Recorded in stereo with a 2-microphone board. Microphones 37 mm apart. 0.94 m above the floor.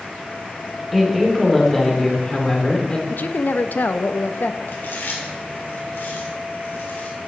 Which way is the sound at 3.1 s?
55° left (ahead or behind).